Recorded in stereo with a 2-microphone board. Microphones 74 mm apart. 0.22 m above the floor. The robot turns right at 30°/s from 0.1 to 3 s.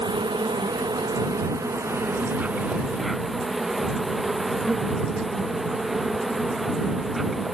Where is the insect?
90° right; by 7.5 s straight ahead.